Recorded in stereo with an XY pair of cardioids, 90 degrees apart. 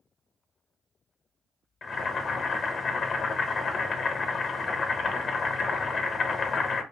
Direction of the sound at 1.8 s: 60° left.